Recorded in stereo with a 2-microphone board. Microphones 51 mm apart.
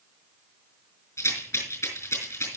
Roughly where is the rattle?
Left.